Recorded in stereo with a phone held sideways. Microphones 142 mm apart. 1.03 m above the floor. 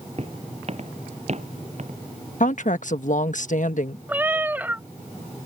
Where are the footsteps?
50° right (ahead or behind); by 2.0 s 60° right (ahead or behind).